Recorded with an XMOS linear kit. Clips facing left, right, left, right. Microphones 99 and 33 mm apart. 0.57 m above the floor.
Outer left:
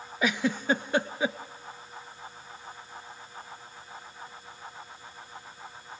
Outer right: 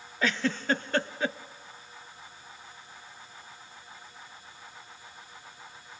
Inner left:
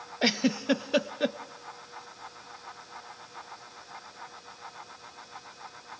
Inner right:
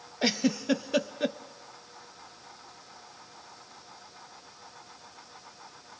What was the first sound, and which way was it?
A giggle, 15° left (ahead or behind).